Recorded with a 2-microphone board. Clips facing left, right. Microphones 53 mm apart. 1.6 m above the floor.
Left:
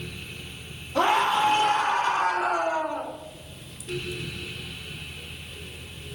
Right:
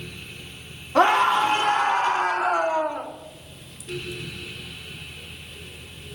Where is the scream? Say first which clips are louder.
Right 4 dB; 55° right (ahead or behind), 3.5 m; by 3.1 s 30° right (ahead or behind), 3 m.